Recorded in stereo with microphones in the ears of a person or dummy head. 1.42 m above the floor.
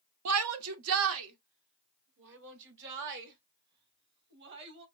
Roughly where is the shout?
Right.